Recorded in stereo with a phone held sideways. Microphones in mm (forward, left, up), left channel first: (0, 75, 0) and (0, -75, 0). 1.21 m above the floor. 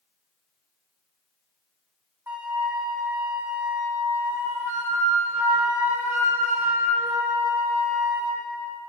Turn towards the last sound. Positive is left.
turn(degrees=-15)  # may be behind; listen again after turning